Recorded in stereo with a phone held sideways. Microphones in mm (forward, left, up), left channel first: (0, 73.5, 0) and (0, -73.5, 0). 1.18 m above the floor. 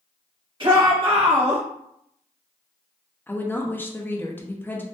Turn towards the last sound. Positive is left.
turn(degrees=15)  # may be behind; listen again after turning